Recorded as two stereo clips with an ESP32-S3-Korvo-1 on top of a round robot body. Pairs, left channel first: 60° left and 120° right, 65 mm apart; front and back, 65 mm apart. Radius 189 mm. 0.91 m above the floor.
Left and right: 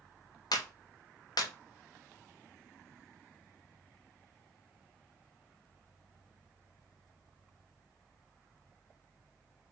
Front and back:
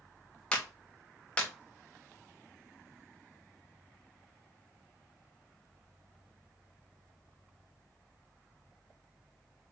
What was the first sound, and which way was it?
A clap, 75° left.